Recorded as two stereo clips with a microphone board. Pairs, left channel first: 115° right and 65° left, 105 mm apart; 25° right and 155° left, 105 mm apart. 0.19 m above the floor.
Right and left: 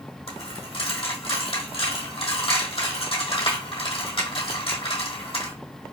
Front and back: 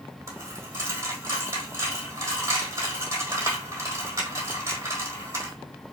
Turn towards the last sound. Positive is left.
turn(degrees=-145)